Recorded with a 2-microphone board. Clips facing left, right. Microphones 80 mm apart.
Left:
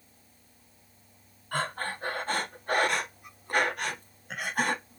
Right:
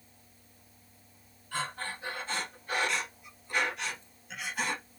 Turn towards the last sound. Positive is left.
turn(degrees=50)  # may be behind; listen again after turning